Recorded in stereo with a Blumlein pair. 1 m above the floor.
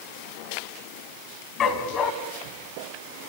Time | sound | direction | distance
1.6 | a dog barking | 25° left | 2 m